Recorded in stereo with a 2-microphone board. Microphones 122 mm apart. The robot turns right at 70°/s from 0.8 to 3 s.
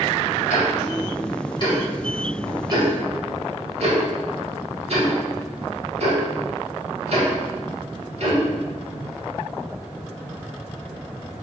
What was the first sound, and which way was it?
Ticking, 80° left.